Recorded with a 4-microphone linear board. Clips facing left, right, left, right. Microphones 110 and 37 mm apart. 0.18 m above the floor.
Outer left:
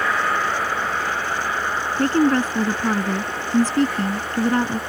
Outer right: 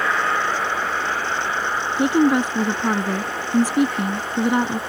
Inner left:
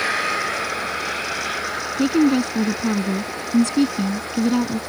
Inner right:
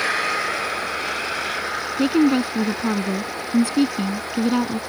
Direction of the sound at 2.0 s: 10° right (ahead or behind).